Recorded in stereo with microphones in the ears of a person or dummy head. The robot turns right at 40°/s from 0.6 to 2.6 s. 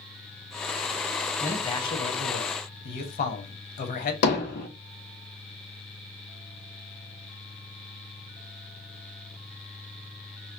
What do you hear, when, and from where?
1.4 s a man speaking: 15° left, 1.0 m; by 4.1 s 65° left, 1.0 m
4.2 s hammering: 65° left (ahead or behind), 1.5 m